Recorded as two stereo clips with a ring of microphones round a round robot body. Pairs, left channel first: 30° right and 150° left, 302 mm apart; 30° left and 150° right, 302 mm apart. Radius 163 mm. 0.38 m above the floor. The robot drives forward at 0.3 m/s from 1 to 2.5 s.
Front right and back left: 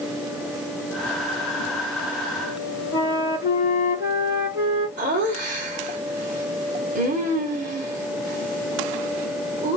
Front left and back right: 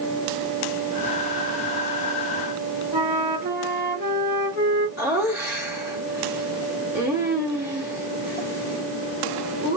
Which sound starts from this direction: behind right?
A flute, at 2.9 s.